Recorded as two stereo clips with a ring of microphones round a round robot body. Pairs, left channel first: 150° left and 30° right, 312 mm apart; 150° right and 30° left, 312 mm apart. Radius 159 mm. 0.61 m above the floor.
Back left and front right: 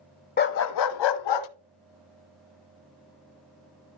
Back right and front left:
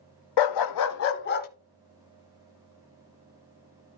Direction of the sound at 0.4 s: 145° right.